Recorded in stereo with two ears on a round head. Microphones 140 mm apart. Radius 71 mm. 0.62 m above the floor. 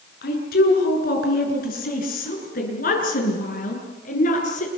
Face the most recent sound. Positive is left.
turn(degrees=55)  # may be behind; listen again after turning